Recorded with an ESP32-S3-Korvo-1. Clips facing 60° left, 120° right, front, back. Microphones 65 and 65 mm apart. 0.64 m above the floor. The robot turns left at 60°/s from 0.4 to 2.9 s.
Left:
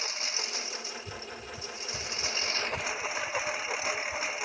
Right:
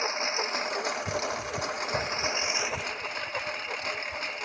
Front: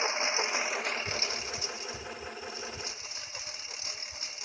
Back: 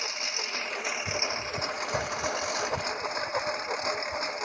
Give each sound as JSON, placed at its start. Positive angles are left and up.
{"t": 0.0, "sound": "a lawn mower", "azimuth_deg": -65}